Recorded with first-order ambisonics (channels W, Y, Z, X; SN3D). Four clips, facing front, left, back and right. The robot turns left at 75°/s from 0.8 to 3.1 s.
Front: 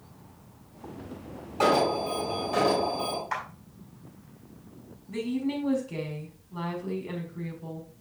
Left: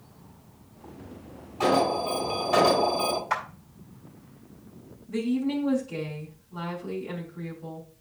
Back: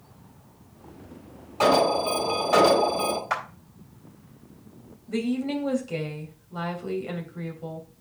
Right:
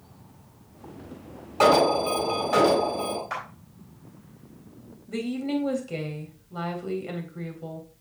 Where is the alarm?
90° right, 2.5 m; by 3.2 s 155° left, 2.5 m.